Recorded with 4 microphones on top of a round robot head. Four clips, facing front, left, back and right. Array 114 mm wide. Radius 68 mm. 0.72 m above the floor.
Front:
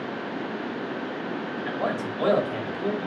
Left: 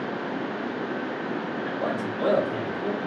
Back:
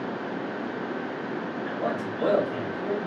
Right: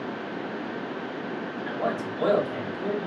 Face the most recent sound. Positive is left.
turn(degrees=-15)